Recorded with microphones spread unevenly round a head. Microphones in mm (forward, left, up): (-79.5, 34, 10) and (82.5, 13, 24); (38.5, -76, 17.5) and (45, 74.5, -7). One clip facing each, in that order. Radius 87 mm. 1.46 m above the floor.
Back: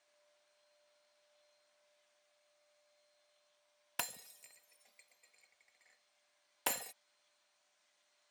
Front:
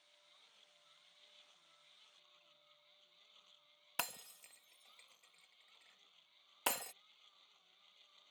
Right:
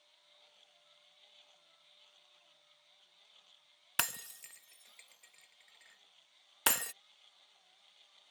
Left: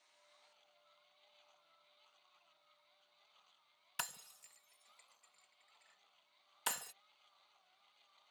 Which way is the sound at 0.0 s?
35° right.